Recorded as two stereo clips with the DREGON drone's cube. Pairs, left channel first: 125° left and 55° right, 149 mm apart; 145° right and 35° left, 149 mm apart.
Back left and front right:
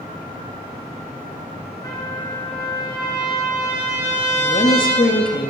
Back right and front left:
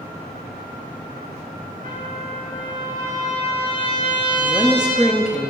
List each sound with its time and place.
1.8 s a trumpet: 60° left, 5.5 m
4.4 s a woman speaking: 115° left, 1.2 m